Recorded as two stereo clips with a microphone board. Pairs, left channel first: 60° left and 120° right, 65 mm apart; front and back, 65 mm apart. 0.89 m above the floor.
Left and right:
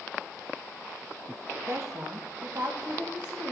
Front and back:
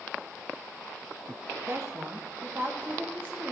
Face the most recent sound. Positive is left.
turn(degrees=-120)